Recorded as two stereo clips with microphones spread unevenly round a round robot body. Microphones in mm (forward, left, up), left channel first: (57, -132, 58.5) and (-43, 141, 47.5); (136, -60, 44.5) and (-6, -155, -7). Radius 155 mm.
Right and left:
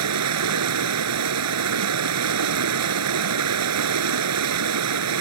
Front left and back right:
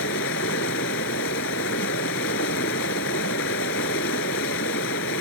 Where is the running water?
75° left.